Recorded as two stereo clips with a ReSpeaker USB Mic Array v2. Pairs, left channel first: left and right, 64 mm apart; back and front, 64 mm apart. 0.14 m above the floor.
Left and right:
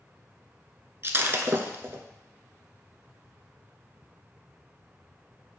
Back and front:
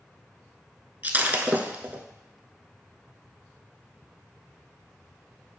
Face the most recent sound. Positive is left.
turn(degrees=-55)